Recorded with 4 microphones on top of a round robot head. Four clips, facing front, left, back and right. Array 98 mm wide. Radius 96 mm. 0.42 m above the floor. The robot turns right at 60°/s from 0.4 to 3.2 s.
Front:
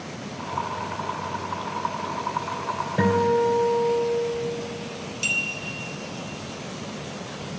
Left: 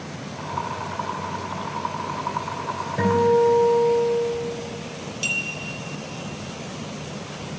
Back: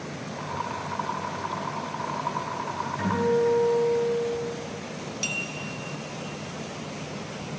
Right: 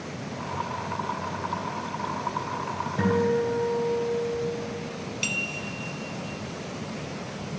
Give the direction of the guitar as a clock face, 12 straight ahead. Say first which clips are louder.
Left 6 dB, front 3 dB; 11 o'clock.